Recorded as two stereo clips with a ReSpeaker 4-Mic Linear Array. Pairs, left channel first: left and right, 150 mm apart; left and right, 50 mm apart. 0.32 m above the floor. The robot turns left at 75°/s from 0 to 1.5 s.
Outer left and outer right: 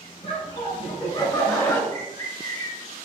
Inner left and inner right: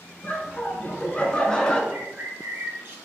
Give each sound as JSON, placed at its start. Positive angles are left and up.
{"t": 0.2, "sound": "laughter", "azimuth_deg": 125, "distance_m": 1.5}
{"t": 1.9, "sound": "a bird", "side_deg": -45, "distance_m": 1.9}